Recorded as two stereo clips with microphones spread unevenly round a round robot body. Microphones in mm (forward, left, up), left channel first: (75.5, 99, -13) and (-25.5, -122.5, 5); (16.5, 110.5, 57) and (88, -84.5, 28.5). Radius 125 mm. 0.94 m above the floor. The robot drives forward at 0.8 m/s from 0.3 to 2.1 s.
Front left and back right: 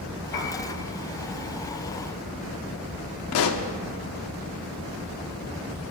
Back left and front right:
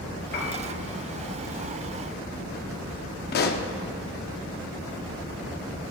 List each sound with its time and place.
0.3 s a piano: 80° left, 2 m; by 0.6 s 85° left, 2 m
3.3 s a pop: 85° left, 0.6 m